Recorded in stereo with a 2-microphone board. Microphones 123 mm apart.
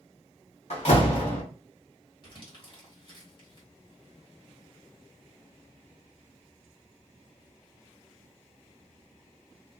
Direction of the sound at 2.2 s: 45° left (ahead or behind).